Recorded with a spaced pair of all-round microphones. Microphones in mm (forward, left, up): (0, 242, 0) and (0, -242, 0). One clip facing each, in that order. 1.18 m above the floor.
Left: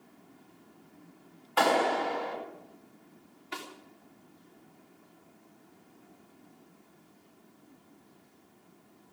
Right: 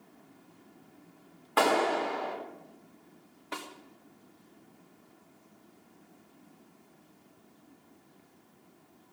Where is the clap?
70° right (ahead or behind), 4 m.